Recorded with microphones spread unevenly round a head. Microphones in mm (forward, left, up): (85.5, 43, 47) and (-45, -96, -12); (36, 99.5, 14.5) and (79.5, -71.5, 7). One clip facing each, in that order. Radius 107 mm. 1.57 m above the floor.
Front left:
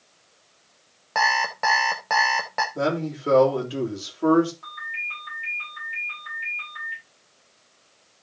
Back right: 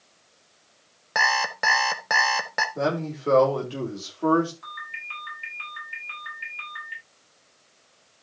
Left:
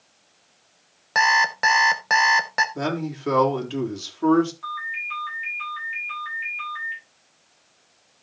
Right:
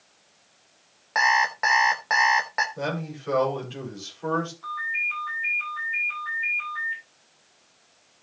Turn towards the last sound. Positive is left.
turn(degrees=155)